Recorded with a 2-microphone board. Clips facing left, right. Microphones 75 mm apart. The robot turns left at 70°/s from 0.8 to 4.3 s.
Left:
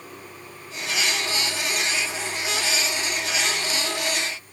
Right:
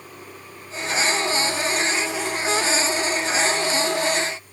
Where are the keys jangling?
No keys jangling in this recording.